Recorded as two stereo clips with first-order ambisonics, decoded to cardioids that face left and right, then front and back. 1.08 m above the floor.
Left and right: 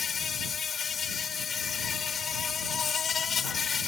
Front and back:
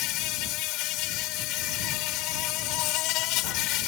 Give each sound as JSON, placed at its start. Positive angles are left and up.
{"t": 0.0, "sound": "an insect", "azimuth_deg": 25}